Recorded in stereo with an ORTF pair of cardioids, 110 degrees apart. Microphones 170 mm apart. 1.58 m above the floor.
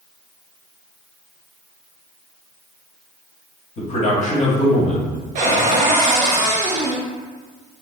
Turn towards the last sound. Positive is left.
turn(degrees=-45)